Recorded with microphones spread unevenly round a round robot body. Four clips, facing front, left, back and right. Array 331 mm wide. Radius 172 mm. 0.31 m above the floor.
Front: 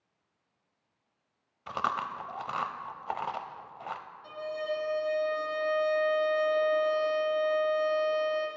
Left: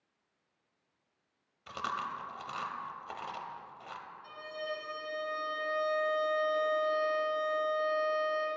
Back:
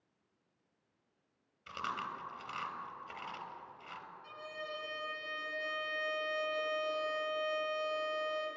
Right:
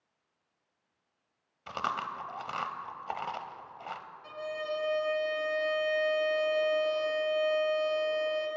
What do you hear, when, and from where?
1.7 s chewing: 30° right, 0.8 m
4.2 s a violin: 40° right, 3.5 m